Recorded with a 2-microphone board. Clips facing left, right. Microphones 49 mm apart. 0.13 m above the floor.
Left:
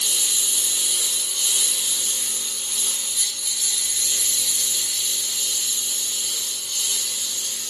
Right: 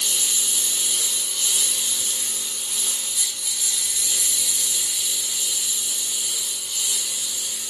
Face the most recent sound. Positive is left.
turn(degrees=-15)  # may be behind; listen again after turning